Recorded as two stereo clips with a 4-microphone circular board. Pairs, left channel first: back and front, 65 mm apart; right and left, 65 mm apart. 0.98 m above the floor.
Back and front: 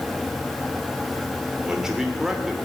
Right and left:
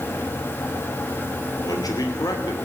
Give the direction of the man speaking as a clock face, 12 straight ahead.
3 o'clock.